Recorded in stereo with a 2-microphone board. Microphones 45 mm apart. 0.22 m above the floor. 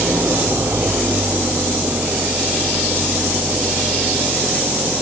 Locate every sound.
0.0 s an engine running: 80° right